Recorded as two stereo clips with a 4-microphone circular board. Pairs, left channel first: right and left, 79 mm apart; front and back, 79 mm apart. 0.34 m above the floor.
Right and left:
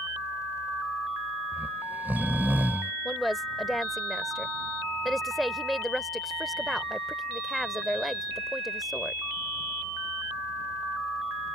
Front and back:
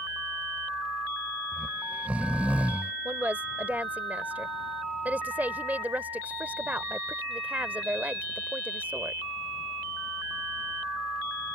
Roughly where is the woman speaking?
Behind.